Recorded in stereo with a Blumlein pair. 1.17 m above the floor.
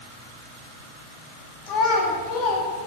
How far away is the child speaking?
About 2 m.